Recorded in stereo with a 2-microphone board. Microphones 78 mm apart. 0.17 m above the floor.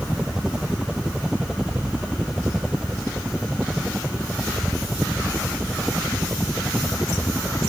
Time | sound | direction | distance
0.0 | a helicopter | 10° right (ahead or behind) | ?